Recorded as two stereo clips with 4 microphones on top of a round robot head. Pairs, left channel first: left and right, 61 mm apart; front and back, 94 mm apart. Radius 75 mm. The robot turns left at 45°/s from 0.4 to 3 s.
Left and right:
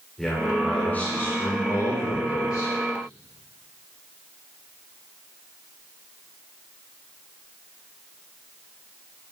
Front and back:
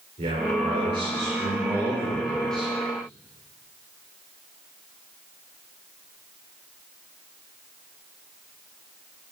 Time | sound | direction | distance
0.2 | a man speaking | 175° left | 6 m